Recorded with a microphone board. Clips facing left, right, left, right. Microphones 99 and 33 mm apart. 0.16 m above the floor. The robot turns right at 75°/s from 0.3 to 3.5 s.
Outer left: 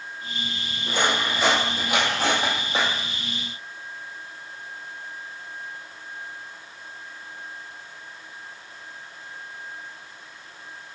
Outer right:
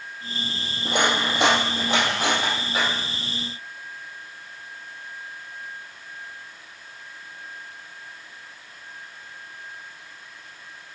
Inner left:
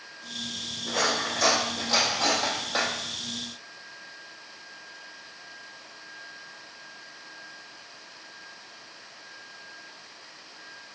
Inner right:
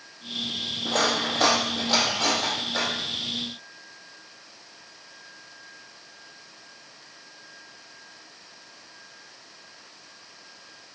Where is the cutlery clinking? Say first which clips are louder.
Outer right 2 dB, inner right 2 dB; 60° right (ahead or behind), 2.5 m; by 2.9 s 40° left (ahead or behind), 2.5 m.